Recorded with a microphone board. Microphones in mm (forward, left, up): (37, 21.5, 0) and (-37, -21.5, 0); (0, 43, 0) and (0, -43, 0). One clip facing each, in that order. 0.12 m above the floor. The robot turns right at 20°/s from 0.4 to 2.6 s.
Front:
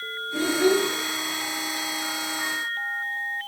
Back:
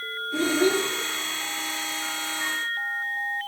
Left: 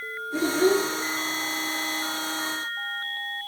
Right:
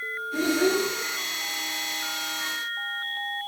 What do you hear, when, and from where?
0.3 s a child speaking: 165° left, 1.7 m; by 0.9 s 170° left, 1.7 m